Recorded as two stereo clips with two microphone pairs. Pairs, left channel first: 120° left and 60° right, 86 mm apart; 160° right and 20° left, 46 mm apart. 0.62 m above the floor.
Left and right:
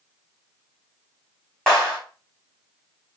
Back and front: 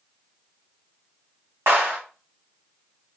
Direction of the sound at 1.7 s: 40° left.